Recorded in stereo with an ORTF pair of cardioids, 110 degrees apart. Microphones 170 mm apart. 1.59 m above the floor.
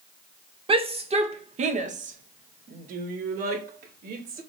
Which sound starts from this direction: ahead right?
A shout, at 0.7 s.